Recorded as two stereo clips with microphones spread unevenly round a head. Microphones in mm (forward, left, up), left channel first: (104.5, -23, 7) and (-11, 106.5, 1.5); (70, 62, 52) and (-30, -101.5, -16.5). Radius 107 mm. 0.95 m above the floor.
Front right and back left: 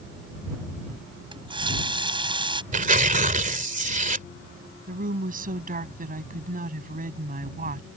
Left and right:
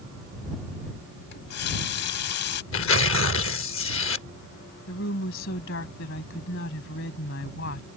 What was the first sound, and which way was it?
A running tap, 70° left.